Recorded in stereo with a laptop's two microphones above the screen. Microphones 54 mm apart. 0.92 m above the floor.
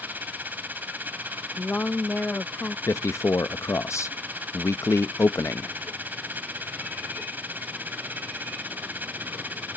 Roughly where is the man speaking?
Left.